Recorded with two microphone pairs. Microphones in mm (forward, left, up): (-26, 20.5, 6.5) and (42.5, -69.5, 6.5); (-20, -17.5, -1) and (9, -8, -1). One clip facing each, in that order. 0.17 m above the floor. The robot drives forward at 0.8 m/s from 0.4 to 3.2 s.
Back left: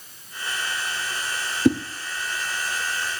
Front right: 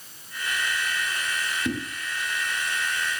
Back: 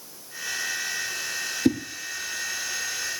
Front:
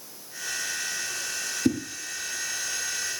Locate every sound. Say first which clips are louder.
1.6 s a whoosh: back left 12 dB, back 2 dB; 145° left, 1.6 m